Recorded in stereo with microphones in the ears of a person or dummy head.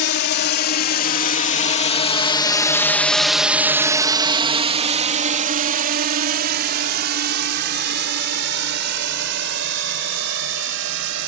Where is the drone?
60° left (ahead or behind); by 11.3 s 70° right (ahead or behind).